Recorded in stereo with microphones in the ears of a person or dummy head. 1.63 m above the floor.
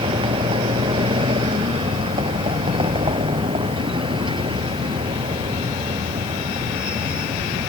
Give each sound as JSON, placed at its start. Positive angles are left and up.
{"t": 0.0, "sound": "a vehicle", "side_deg": -30}